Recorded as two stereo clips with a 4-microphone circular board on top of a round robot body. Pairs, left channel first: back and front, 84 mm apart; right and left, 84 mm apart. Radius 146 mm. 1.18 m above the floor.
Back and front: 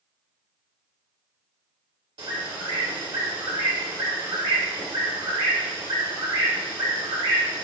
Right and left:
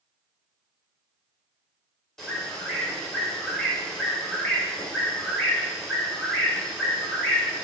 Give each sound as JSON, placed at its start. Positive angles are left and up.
{"t": 2.2, "sound": "a bird", "azimuth_deg": -5, "distance_m": 1.8}